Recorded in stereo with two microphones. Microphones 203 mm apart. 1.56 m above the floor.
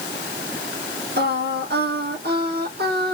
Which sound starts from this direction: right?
Singing, at 1.2 s.